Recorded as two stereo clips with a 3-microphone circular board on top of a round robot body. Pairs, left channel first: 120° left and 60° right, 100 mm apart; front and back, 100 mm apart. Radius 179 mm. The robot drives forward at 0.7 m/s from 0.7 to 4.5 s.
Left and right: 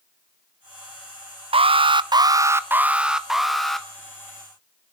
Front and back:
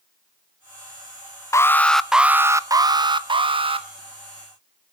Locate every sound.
1.5 s an alarm: 60° right, 0.8 m; by 3.9 s 155° right, 1.5 m